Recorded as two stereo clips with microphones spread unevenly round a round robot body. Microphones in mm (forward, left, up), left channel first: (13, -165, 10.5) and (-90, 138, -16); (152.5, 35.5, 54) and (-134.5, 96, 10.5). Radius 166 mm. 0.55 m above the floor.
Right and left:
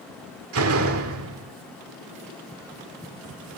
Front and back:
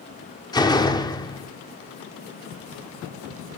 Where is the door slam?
70° left, 1.0 m.